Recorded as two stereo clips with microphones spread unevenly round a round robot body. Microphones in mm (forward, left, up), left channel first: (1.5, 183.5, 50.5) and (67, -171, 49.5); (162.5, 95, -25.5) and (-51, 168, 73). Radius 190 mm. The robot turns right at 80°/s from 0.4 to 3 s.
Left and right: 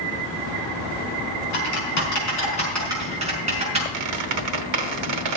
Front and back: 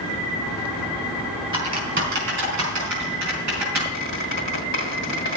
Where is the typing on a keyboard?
90° left, 5 m; by 3.8 s 155° right, 5 m.